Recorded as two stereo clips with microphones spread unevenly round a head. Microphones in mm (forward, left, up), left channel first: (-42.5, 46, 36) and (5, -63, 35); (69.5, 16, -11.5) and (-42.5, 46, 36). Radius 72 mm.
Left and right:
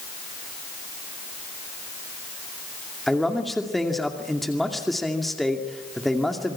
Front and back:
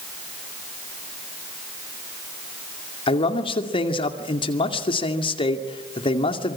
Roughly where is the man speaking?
Ahead left.